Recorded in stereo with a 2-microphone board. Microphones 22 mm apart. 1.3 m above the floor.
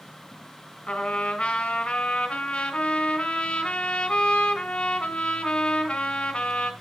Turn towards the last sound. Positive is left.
turn(degrees=65)  # may be behind; listen again after turning